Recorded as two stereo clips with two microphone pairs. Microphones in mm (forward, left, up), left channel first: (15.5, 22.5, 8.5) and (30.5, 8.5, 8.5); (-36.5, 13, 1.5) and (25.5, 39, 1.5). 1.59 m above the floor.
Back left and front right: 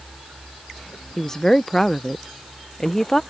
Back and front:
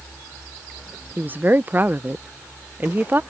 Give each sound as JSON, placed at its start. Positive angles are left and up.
{"t": 1.2, "sound": "a woman speaking", "azimuth_deg": 65}